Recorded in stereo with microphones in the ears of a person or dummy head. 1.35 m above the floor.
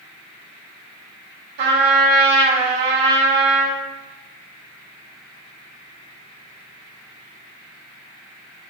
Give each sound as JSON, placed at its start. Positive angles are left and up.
{"t": 1.6, "sound": "a trumpet", "side_deg": -65, "distance_m": 3.0}